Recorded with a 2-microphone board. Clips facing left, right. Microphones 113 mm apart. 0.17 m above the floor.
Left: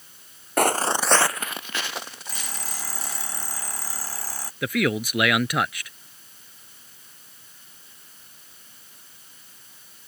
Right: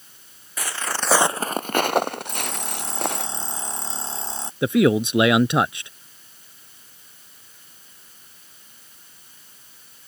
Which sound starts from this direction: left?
Footsteps, at 0.6 s.